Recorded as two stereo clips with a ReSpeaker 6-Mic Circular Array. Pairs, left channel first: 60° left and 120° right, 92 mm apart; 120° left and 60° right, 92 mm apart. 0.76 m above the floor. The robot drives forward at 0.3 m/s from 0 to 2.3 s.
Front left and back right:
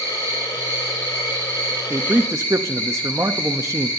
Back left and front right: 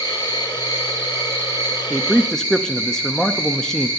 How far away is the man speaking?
About 0.5 m.